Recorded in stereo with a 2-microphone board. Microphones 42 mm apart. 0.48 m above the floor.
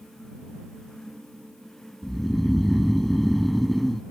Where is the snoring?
5° left (ahead or behind).